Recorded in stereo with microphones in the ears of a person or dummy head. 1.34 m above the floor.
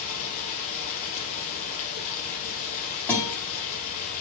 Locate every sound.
0.0 s running water: 40° left (ahead or behind), 3 m
3.1 s a guitar: 10° left (ahead or behind), 4 m